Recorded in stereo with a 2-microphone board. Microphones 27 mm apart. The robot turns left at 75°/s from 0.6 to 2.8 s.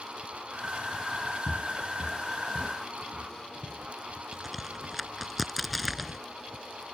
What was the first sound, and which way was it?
Footsteps, 35° left (ahead or behind).